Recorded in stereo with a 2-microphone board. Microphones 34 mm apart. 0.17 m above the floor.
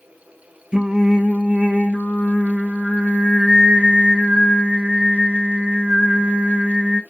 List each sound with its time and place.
0.7 s singing: 30° right (ahead or behind), 0.8 m